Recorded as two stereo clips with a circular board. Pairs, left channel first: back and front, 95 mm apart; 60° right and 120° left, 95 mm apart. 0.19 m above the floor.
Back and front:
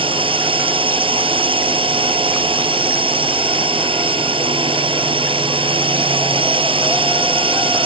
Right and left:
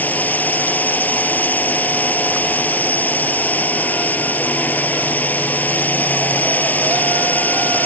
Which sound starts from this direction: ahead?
A drone, at 0.0 s.